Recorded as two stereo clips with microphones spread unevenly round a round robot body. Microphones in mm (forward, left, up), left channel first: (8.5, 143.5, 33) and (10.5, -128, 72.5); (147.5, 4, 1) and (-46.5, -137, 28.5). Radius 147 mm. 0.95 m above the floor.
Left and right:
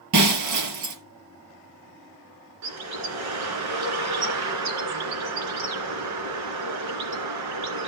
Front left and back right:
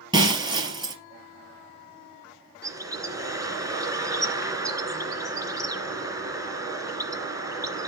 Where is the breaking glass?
75° right, 3.5 m.